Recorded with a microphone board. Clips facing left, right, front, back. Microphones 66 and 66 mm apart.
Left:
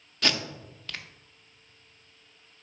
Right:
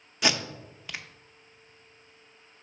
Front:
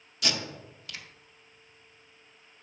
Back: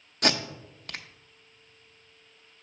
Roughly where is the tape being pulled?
Behind.